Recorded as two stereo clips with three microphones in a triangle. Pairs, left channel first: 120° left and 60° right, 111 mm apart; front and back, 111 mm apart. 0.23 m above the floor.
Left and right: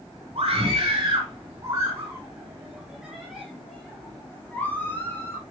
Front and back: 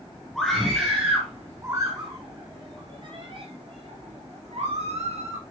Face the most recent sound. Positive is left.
turn(degrees=-175)